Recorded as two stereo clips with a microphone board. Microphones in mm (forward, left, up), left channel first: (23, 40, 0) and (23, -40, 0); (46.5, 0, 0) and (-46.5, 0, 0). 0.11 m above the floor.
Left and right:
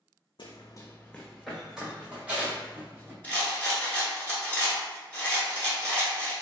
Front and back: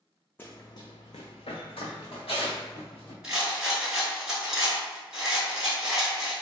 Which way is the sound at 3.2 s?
105° left.